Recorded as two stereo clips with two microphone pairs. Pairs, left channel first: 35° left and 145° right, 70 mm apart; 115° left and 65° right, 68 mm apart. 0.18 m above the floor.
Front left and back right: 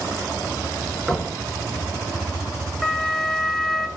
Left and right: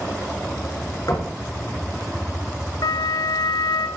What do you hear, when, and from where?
1.1 s knocking: 125° left, 2.0 m
2.8 s a flute: 120° left, 0.5 m